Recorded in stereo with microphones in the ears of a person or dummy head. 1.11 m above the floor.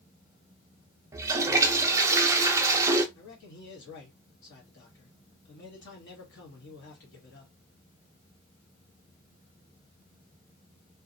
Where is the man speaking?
60° left (ahead or behind), 1.2 m.